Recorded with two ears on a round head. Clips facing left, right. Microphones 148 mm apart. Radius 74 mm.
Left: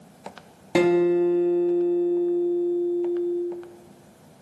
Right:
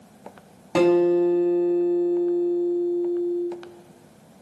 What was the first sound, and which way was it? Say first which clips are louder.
A guitar: right 1 dB; 10° left (ahead or behind).